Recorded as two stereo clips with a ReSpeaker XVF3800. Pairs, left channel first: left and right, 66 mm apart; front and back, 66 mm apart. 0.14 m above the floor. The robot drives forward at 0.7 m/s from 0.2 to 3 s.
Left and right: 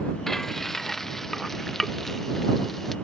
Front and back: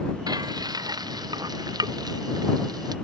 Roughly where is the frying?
Behind.